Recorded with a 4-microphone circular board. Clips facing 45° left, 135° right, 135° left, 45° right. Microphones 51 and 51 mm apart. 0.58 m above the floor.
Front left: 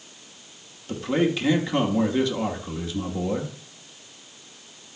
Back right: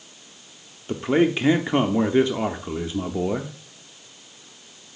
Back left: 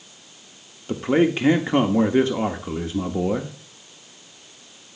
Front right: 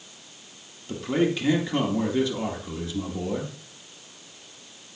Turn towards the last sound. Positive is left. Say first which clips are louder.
# back right 3 dB, back left 5 dB
turn(degrees=170)